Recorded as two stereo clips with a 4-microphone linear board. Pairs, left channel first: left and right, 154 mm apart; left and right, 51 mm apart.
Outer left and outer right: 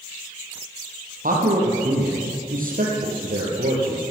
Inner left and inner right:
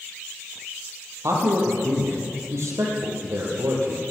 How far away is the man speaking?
About 3.5 m.